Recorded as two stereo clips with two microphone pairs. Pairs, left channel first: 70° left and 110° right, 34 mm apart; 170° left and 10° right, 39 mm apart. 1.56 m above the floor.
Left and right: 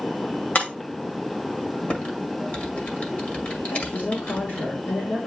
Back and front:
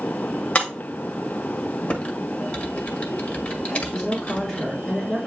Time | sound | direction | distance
0.6 | breaking glass | 115° left | 1.8 m
1.9 | typing on a keyboard | 115° left | 1.7 m
3.6 | a woman speaking | 90° left | 3 m